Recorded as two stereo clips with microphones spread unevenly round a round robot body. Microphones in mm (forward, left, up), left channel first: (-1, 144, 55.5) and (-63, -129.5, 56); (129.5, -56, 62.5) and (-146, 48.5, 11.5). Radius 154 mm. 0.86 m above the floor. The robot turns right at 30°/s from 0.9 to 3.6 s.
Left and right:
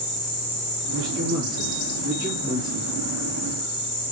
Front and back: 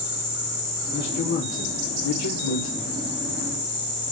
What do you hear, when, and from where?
0.9 s a man speaking: 65° right, 2.0 m; by 2.9 s 5° right, 2.0 m